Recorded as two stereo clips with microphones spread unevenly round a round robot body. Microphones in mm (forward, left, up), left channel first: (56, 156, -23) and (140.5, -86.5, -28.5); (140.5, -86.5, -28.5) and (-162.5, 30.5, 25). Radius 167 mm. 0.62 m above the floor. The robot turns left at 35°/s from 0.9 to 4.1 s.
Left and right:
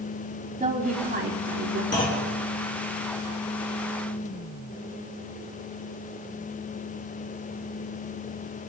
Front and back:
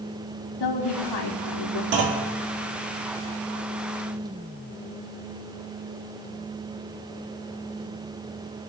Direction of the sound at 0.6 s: 10° right.